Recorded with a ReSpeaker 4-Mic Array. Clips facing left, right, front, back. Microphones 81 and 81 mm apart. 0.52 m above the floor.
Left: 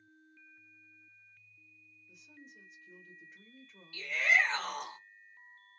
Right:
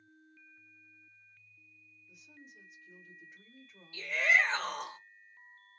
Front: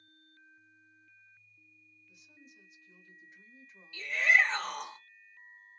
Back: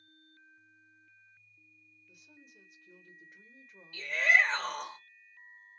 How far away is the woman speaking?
About 1.5 m.